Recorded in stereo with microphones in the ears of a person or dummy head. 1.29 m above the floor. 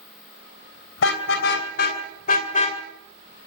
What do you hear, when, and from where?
1.0 s a car horn: 75° left (ahead or behind), 3 m; by 2.8 s 40° left (ahead or behind), 2.5 m